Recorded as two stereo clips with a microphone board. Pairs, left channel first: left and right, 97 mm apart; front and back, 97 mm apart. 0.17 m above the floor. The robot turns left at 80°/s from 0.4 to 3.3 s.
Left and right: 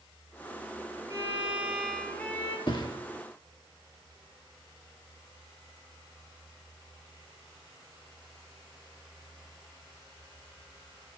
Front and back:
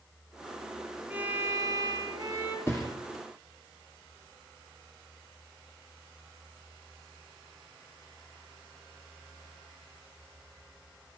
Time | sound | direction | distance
1.1 | a violin | 120° right | 2 m
2.7 | a thud | 60° left | 2.0 m